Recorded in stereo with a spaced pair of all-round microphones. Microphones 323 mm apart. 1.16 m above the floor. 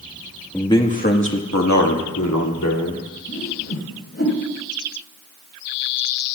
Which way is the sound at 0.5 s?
5° left (ahead or behind).